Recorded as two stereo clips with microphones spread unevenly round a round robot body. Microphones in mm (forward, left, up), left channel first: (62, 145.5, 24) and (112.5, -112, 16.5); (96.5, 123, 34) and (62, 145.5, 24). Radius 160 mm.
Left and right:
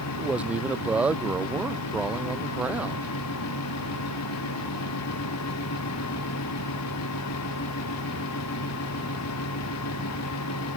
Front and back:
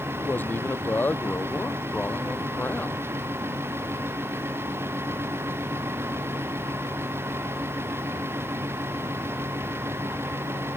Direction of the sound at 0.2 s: 5° left.